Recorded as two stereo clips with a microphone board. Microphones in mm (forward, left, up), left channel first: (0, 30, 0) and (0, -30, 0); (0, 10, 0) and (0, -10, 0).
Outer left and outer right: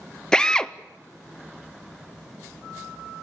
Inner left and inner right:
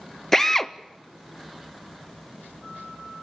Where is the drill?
10° left (ahead or behind), 0.5 m.